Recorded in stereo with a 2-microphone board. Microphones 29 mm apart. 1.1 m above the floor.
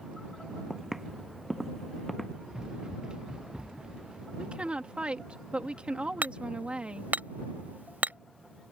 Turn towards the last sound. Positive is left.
turn(degrees=-75)  # may be behind; listen again after turning